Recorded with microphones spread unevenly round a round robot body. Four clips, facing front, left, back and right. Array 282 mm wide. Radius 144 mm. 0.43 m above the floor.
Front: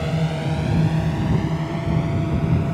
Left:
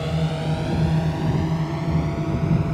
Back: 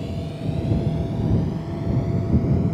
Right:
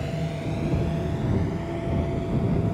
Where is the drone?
30° left; by 2.8 s 50° left.